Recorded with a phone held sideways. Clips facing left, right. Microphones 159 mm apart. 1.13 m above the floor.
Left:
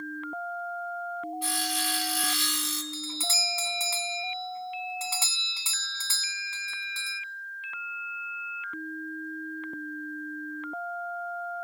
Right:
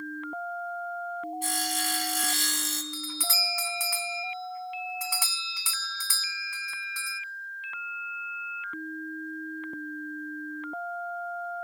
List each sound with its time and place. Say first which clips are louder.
1.4 s sawing: even; 45° right (ahead or behind), 1.6 m
2.9 s a doorbell: even; 25° left (ahead or behind), 0.5 m